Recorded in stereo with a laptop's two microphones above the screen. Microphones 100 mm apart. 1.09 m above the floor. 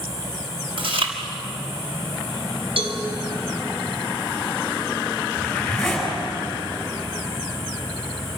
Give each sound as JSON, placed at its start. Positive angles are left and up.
{"t": 0.8, "sound": "chewing", "side_deg": -65, "distance_m": 4.0}
{"t": 2.8, "sound": "a cowbell", "side_deg": -70, "distance_m": 4.0}
{"t": 5.3, "sound": "a zipper", "side_deg": 5, "distance_m": 6.5}